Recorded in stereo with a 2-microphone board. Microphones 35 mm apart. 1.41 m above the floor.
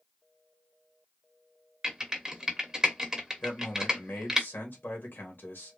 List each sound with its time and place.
1.8 s typing on a keyboard: 15° right (ahead or behind), 1.1 m
3.4 s a man speaking: 65° left (ahead or behind), 1.5 m